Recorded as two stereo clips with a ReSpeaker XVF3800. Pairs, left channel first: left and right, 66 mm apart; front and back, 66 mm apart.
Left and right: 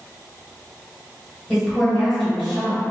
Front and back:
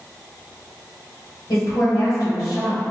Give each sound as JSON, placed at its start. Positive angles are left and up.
{"t": 1.5, "sound": "a woman speaking", "azimuth_deg": 0, "distance_m": 1.3}